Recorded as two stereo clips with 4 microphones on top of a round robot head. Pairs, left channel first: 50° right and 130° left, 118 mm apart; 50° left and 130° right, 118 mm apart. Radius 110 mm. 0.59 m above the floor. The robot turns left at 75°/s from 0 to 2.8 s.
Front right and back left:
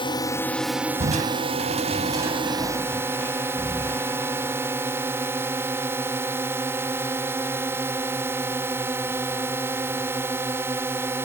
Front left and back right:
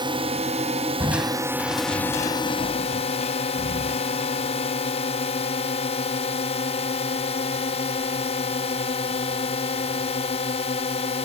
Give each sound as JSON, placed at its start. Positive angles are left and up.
{"t": 0.0, "sound": "a drone", "azimuth_deg": -85}
{"t": 1.0, "sound": "crushing", "azimuth_deg": 160}